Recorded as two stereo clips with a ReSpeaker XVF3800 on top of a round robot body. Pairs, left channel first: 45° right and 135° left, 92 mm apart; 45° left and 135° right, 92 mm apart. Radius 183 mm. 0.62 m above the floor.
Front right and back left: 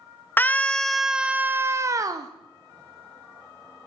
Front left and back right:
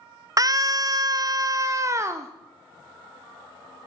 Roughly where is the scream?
Right.